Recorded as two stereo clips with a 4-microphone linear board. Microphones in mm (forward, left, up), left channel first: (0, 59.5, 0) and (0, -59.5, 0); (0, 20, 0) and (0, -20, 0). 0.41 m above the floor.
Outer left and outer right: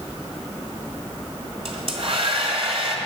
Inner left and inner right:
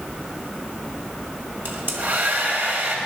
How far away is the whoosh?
I don't hear a whoosh.